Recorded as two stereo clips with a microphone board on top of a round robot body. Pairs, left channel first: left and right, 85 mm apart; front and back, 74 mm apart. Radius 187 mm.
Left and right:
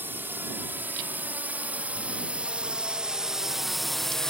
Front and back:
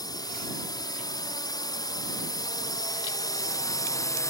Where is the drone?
25° right; by 4.3 s 5° left.